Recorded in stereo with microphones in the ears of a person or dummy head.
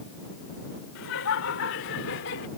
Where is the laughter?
85° left; by 2.5 s 70° left (ahead or behind).